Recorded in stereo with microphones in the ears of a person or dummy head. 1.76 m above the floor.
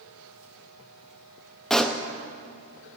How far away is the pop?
About 0.9 m.